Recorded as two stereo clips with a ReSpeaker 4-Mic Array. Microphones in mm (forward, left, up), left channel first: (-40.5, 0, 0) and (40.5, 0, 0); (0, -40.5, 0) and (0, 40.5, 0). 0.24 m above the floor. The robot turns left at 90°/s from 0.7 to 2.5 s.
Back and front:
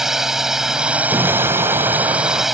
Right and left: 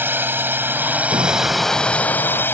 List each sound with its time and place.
0.0 s a drone: 75° left; by 2.5 s 85° right
1.1 s an explosion: 60° left; by 2.4 s 60° right